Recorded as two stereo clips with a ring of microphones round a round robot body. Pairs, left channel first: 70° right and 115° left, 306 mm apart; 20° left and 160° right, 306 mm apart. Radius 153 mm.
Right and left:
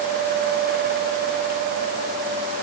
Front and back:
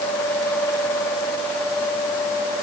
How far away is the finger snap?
I don't hear a finger snap.